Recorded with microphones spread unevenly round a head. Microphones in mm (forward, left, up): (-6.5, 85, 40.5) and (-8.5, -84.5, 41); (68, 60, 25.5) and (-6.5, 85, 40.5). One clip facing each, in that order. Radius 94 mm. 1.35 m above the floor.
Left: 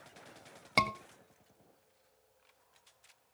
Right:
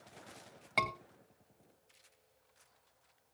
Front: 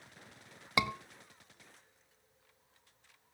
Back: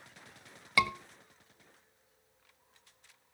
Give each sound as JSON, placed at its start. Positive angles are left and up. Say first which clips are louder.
{"t": 0.8, "sound": "a scream", "louder": "left 4 dB, back 3 dB", "azimuth_deg": 45, "distance_m": 2.0}